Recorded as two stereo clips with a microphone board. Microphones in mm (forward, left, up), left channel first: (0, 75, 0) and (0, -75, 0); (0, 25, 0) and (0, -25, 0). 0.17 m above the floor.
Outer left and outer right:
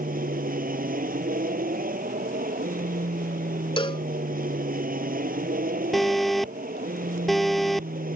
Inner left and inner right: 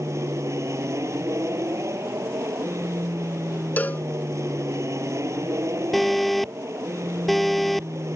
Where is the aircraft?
70° right (ahead or behind).